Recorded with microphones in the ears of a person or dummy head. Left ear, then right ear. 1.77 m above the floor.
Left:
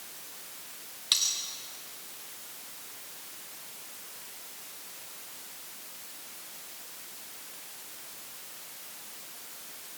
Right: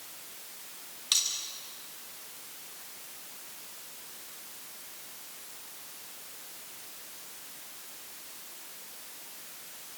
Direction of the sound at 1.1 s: Centre (ahead or behind).